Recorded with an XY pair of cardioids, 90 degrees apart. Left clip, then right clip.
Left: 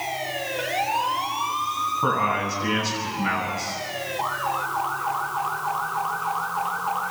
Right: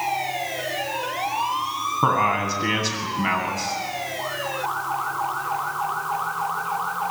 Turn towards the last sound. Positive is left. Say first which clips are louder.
# right 4 dB
turn(degrees=-55)